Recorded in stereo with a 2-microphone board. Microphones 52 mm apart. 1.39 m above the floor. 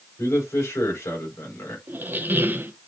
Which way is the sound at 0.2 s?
60° left (ahead or behind).